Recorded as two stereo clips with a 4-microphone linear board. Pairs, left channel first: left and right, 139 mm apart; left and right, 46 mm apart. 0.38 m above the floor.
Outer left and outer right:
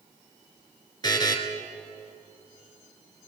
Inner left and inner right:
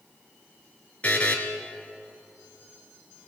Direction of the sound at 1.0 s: 30° left (ahead or behind).